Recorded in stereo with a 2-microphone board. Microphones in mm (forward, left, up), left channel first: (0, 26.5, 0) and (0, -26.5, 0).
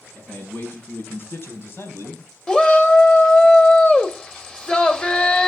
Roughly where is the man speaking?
Left.